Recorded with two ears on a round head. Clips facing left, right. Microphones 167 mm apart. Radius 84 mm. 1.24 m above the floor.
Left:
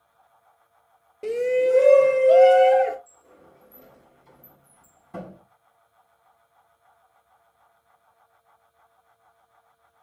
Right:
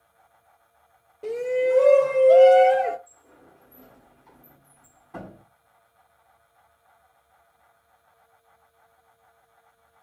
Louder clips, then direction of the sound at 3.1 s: Left 1 dB; 35° left (ahead or behind).